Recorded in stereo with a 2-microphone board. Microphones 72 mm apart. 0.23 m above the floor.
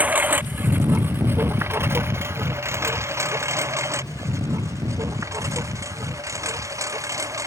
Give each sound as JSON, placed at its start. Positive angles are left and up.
{"t": 0.0, "sound": "a lawn mower", "side_deg": -20}